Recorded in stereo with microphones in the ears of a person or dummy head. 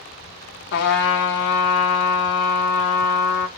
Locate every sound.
0.7 s a trumpet: 65° left (ahead or behind), 0.7 m